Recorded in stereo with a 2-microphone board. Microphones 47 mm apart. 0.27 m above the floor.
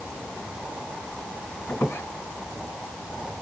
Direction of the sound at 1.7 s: 65° left (ahead or behind).